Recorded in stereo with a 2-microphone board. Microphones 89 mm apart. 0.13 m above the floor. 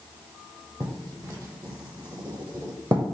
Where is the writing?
40° right (ahead or behind), 0.8 m.